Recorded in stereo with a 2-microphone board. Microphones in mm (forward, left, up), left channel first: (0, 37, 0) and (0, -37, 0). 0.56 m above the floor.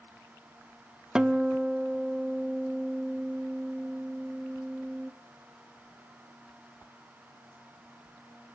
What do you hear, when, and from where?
1.1 s a guitar: 10° right (ahead or behind), 0.8 m